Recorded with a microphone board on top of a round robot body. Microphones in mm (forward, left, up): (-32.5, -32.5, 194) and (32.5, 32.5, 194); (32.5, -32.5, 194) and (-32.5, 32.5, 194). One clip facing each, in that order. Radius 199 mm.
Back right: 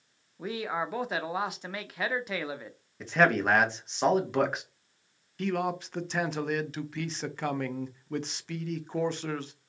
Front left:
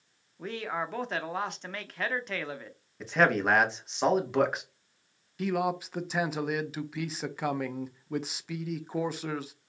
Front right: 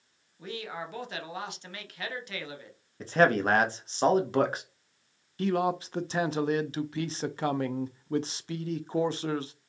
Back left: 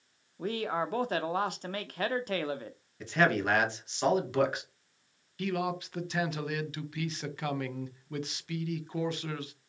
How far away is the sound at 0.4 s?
About 0.8 m.